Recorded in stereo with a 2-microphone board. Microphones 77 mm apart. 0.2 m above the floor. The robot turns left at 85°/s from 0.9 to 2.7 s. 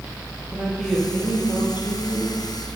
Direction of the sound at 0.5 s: Straight behind.